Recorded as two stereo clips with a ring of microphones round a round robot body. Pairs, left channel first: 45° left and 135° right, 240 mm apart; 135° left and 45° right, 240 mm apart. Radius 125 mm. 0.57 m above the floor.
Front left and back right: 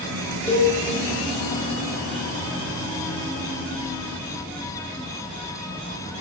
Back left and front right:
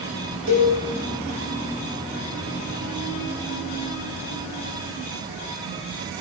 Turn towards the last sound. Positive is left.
turn(degrees=-35)